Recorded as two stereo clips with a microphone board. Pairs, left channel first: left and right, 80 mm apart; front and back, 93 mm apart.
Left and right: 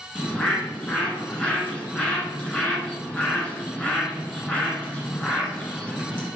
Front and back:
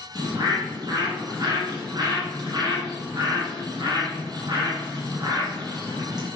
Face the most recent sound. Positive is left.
turn(degrees=160)